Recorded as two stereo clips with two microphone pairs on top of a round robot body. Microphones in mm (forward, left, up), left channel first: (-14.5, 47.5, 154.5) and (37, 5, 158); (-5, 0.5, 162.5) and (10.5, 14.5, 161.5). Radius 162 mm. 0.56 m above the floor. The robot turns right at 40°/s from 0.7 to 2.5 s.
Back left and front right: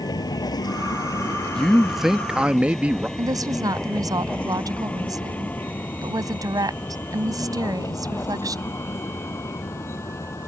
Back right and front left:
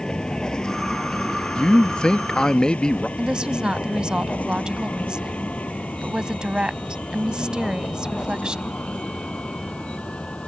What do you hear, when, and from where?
0.0 s a vehicle: 165° left; by 10.5 s 170° right
1.5 s a man speaking: 145° right; by 3.1 s 105° right
3.2 s a woman speaking: 10° right